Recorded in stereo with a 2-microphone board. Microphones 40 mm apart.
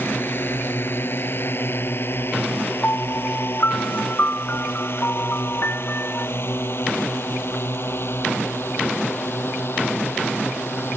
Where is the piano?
55° left (ahead or behind).